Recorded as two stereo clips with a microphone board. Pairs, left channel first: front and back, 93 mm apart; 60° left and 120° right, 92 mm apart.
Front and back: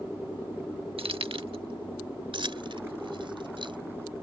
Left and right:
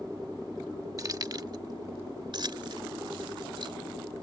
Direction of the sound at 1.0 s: 170° right.